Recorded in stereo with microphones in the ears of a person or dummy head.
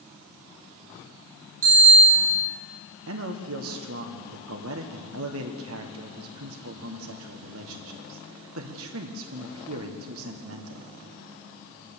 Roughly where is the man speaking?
Right.